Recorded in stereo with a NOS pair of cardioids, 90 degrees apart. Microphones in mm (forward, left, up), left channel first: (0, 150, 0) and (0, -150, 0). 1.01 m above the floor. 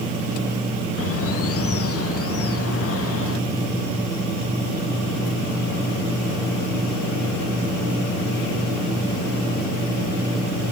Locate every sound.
1.0 s a bird: 50° left, 1.0 m